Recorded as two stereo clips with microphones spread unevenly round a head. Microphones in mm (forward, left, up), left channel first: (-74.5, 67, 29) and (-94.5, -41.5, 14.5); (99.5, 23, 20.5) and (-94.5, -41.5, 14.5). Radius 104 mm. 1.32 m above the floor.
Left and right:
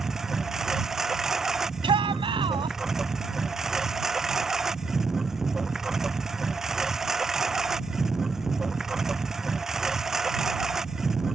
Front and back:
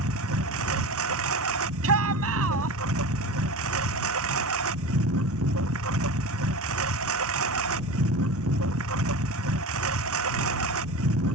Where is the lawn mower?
175° left.